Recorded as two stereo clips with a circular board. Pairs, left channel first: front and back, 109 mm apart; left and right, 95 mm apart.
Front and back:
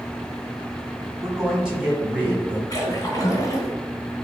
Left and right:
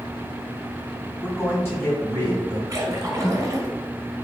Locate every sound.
1.2 s a man speaking: 90° left, 1.6 m; by 2.6 s 115° left, 2 m
2.7 s a splash: 45° right, 1.1 m